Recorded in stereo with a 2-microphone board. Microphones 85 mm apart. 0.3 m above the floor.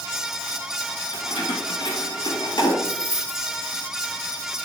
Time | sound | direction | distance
1.1 | keys jangling | 75° left (ahead or behind) | 3 m
2.8 | keys jangling | 30° left (ahead or behind) | 3.5 m